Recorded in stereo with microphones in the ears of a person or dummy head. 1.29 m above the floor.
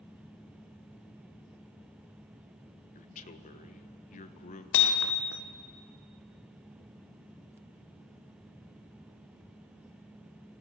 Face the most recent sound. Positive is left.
turn(degrees=65)  # may be behind; listen again after turning